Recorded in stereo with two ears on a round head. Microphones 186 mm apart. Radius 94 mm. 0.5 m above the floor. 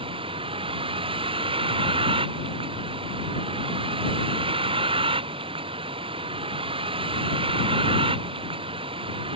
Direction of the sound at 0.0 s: 25° right (ahead or behind).